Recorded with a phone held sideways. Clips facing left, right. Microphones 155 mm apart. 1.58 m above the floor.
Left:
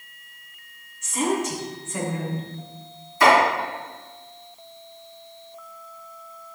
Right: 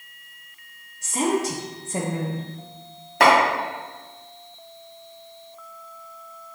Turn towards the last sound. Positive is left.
turn(degrees=-70)  # may be behind; listen again after turning